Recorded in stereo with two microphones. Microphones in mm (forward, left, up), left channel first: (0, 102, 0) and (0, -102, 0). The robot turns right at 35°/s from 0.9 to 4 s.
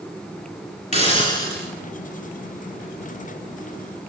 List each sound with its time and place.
0.9 s a hiss: 35° left (ahead or behind), 2 m; by 1.7 s 10° left (ahead or behind), 2 m